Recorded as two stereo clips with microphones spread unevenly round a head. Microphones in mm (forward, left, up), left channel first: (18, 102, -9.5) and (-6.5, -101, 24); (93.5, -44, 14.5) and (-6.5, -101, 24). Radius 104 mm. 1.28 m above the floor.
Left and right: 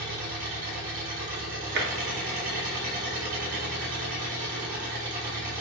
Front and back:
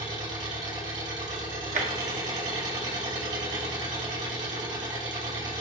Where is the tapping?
140° right, 1.5 m.